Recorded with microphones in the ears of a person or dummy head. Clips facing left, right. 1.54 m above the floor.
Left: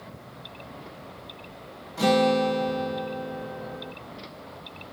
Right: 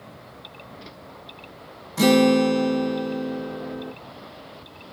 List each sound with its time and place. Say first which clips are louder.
2.0 s a guitar: right 5 dB; 50° right (ahead or behind), 1.6 m